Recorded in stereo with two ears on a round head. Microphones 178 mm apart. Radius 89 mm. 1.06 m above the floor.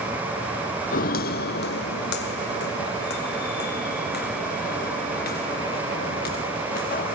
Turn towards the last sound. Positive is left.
turn(degrees=50)  # may be behind; listen again after turning